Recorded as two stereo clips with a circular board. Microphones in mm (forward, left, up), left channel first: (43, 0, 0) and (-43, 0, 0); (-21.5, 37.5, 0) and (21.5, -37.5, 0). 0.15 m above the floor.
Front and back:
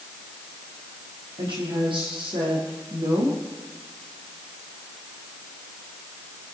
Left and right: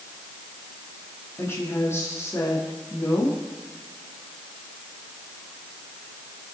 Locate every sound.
1.4 s a woman speaking: straight behind, 5.5 m